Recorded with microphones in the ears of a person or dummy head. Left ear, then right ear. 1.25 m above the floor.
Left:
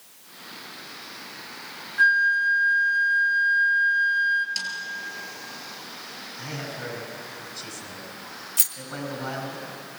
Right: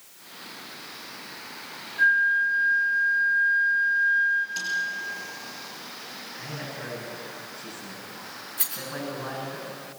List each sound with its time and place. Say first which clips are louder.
2.0 s a flute: left 1 dB; 70° left (ahead or behind), 2.0 m
4.6 s a snare drum: left 1 dB; 40° left (ahead or behind), 6 m
6.4 s a man speaking: left 3 dB; 80° left, 8.5 m
8.6 s a rattle: left 5 dB; 70° left (ahead or behind), 2.5 m